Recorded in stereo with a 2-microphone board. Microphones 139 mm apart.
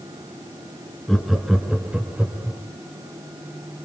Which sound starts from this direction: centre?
Laughter, at 1.1 s.